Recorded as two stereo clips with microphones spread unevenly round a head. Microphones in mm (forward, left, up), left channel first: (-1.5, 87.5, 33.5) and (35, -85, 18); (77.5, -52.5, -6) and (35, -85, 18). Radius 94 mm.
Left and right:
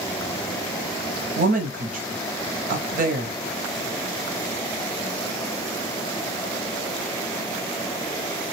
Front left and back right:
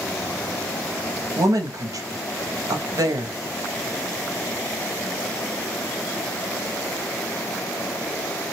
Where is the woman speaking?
130° right, 0.6 m.